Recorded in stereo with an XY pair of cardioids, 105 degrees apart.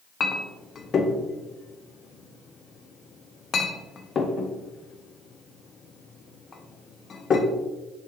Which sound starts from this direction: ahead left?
A clink, at 0.2 s.